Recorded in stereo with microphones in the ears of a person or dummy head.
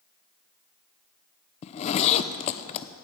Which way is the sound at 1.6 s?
35° left (ahead or behind).